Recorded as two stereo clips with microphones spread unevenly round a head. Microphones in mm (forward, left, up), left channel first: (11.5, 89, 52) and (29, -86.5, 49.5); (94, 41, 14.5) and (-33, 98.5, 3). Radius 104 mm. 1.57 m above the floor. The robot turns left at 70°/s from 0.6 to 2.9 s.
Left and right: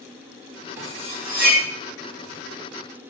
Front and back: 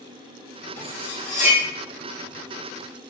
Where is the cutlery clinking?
10° right, 1.4 m; by 1.6 s 70° right, 1.4 m.